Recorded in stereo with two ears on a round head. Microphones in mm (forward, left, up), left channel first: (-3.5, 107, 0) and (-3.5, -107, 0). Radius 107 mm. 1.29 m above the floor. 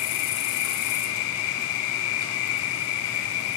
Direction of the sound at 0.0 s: 65° left (ahead or behind).